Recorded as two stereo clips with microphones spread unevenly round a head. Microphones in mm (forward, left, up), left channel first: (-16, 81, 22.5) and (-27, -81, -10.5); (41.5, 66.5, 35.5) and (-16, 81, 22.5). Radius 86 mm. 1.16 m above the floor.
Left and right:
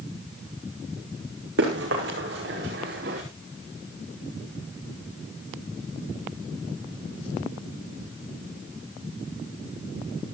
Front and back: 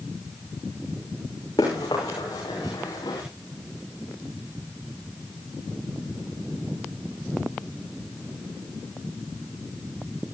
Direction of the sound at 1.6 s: 65° right.